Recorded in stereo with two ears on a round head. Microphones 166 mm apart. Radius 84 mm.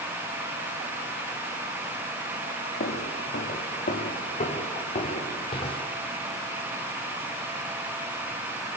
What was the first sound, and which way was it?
Footsteps, 55° left (ahead or behind).